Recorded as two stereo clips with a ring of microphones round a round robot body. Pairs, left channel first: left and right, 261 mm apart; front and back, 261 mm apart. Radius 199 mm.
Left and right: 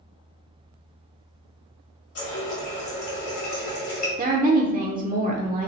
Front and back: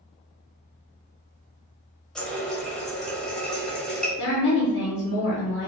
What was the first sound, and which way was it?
A running tap, 90° left.